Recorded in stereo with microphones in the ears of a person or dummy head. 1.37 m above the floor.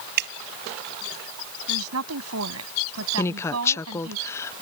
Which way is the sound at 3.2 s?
15° left (ahead or behind).